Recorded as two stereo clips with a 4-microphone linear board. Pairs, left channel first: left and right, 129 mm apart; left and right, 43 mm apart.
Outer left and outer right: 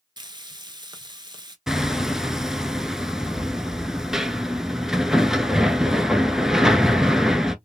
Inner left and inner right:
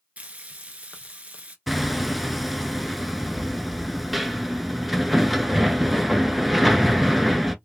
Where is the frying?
35° right (ahead or behind), 0.7 m.